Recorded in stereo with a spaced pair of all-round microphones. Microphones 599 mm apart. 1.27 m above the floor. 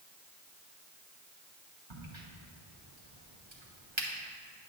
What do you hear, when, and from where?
1.9 s a crack: 50° right (ahead or behind), 1.2 m